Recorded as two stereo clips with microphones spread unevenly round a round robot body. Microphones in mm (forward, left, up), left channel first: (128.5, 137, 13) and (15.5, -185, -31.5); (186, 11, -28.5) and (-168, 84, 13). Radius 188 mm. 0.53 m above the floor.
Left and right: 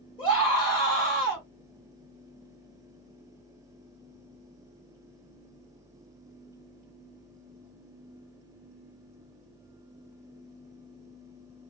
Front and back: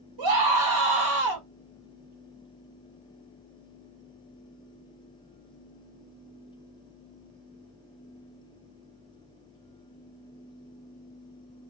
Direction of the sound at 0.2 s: 150° left.